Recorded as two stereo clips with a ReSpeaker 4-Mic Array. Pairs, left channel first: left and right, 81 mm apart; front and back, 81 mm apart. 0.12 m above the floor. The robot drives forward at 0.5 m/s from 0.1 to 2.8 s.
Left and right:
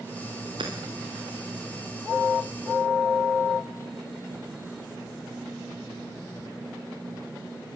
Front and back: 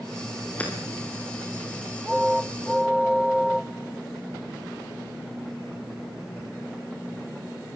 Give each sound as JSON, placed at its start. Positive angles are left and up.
{"t": 0.6, "sound": "hammering", "azimuth_deg": -70, "distance_m": 6.0}